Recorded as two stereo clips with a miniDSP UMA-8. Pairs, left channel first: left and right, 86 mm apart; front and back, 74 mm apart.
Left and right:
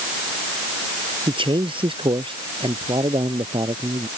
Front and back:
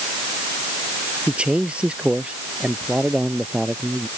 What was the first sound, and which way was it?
A man speaking, 105° right.